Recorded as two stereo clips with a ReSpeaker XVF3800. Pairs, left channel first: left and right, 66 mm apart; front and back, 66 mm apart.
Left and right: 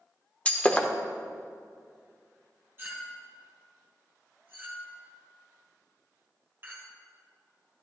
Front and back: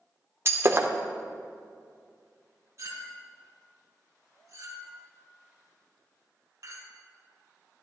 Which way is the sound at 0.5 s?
150° left.